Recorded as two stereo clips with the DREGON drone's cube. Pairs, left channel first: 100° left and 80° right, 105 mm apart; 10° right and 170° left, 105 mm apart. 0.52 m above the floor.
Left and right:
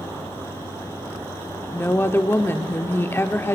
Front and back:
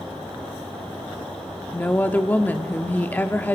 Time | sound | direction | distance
1.7 | a woman speaking | 50° left | 0.8 m